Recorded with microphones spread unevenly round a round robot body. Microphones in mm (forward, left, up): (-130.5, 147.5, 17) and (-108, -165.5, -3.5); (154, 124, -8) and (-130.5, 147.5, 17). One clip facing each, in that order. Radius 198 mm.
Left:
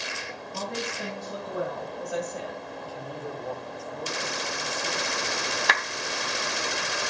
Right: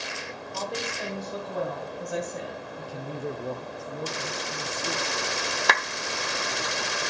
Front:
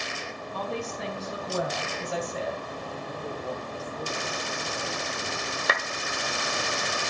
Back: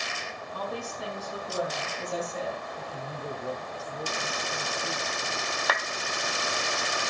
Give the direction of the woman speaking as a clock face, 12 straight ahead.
11 o'clock.